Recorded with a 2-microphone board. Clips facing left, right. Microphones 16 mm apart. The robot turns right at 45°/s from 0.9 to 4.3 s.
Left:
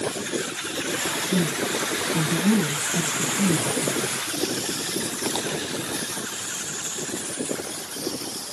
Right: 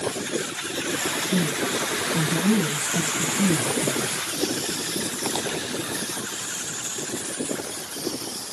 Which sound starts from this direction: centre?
A man speaking, at 1.3 s.